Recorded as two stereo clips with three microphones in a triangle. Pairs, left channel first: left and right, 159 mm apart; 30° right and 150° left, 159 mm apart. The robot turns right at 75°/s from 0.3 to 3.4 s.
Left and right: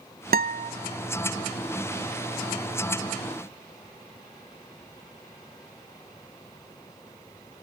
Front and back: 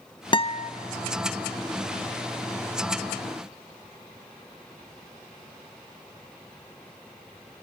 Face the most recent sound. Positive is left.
turn(degrees=140)